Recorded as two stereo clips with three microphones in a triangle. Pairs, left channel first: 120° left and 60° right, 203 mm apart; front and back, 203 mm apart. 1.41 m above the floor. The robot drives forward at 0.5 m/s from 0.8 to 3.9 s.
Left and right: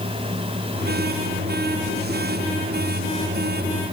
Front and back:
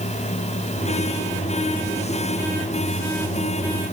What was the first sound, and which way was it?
Only background noise.